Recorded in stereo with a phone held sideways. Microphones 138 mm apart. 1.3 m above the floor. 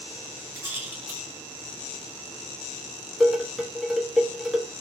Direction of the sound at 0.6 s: 15° right (ahead or behind).